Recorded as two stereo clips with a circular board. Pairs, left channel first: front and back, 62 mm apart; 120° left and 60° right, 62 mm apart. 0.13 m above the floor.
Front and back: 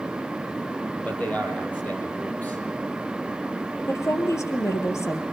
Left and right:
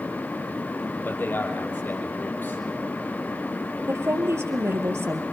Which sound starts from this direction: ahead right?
A woman speaking, at 3.9 s.